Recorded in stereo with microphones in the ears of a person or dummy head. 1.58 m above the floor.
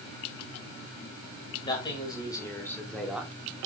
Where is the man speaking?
25° left (ahead or behind), 3 m; by 3.3 s 10° right (ahead or behind), 1.4 m.